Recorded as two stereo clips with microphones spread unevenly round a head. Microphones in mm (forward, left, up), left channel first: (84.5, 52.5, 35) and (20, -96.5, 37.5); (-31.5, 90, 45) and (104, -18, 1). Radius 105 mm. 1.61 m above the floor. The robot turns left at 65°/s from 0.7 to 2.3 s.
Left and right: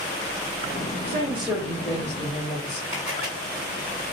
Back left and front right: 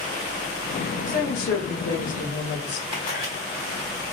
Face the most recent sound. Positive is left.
turn(degrees=180)